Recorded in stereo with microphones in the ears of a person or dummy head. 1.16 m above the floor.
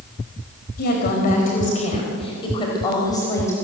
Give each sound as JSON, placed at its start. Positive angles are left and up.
{"t": 0.8, "sound": "a woman speaking", "side_deg": 50, "distance_m": 5.0}